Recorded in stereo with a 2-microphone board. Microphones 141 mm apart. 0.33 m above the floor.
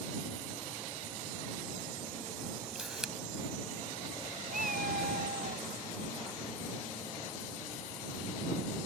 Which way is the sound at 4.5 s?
80° right.